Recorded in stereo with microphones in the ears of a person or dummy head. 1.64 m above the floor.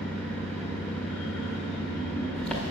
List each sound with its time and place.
0.0 s an engine running: 5° left (ahead or behind), 1.4 m